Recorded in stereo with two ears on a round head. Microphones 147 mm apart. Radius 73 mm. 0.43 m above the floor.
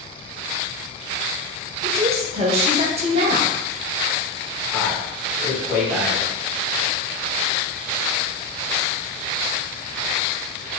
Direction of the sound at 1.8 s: 35° right (ahead or behind).